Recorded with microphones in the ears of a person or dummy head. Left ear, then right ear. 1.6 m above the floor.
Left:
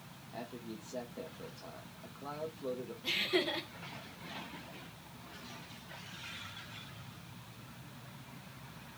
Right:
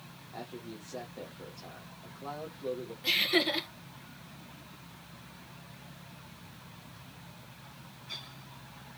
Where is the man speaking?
Centre (ahead or behind), 0.8 m.